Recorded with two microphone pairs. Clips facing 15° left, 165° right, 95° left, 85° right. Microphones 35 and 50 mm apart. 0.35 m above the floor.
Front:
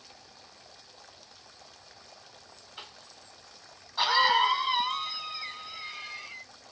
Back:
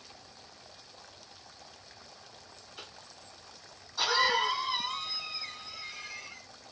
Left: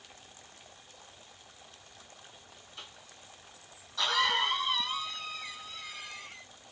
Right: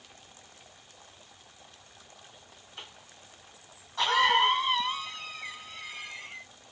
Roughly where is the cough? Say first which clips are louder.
Front 2 dB, right 3 dB; ahead right.